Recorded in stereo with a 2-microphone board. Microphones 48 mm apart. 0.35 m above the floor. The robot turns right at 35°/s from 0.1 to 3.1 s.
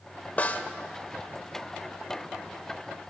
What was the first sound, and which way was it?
A snare drum, 35° left (ahead or behind).